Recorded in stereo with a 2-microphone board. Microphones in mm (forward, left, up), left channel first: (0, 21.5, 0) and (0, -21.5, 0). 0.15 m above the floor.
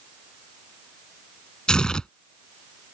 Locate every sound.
1.7 s tearing paper: 20° left (ahead or behind)